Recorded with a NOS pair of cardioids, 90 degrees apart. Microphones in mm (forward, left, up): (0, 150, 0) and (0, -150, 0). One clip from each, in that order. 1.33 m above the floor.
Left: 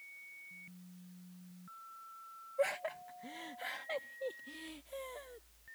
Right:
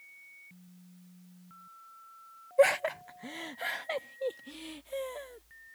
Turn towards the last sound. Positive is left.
turn(degrees=-40)